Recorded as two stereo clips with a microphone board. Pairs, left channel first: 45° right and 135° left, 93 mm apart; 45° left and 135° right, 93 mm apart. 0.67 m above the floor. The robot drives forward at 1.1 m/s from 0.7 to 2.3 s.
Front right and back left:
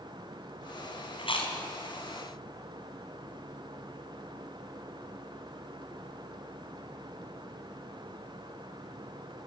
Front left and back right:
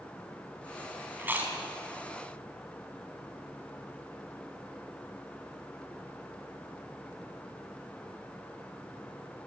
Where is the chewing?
65° right, 3.5 m; by 1.6 s 70° right, 3 m.